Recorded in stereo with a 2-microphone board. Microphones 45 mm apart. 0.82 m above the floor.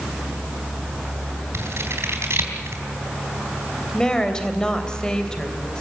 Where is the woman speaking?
15° left (ahead or behind), 3 m.